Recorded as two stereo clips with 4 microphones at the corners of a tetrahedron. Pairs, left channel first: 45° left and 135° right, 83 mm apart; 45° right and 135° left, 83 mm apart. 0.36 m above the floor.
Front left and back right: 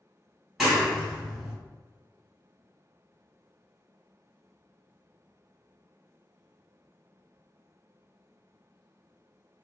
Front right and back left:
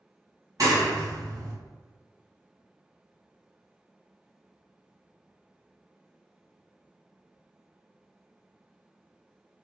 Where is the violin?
No violin in this recording.